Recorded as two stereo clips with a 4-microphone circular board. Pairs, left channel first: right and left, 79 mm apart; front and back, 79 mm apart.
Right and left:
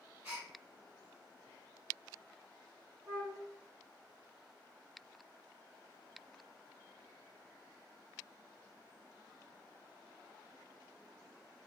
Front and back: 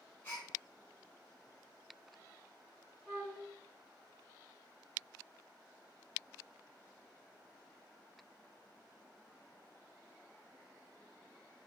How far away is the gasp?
About 1.4 m.